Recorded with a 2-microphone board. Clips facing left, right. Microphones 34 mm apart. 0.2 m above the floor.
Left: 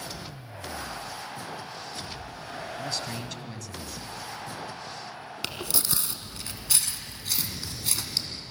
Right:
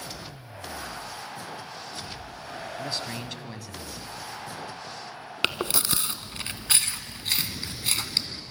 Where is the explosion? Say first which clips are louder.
Right 3 dB; 20° right (ahead or behind), 1.9 m.